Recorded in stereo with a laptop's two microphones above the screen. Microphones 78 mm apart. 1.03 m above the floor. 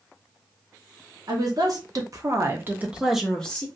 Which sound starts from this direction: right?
A woman speaking, at 1.3 s.